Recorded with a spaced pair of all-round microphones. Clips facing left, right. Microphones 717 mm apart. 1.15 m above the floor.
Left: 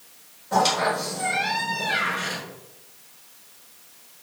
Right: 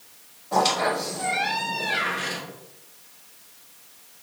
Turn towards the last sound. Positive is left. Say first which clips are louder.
# even
turn(degrees=45)  # may be behind; listen again after turning